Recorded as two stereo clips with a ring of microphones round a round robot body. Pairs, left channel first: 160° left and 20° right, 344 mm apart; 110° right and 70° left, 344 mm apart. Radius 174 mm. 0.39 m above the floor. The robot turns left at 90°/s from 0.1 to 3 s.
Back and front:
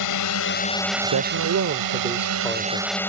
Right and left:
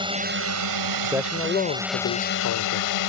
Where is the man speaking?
Straight ahead; by 3.0 s 175° right.